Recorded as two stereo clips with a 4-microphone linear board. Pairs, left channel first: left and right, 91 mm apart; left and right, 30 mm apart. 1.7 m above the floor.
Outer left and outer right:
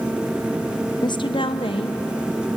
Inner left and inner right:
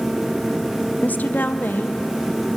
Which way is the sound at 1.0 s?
50° left (ahead or behind).